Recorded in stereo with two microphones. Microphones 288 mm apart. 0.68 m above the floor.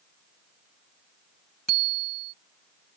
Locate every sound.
1.7 s a bicycle bell: 80° left